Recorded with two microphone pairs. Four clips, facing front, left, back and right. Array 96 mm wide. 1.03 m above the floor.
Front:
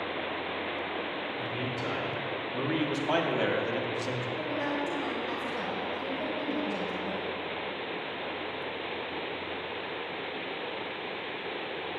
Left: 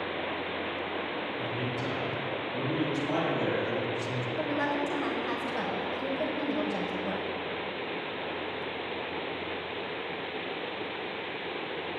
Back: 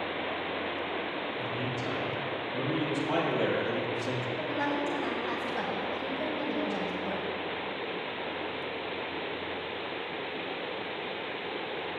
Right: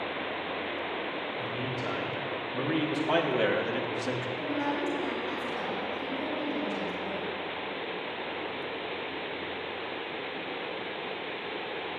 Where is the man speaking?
10° right, 4 m; by 4.3 s 75° right, 1.7 m.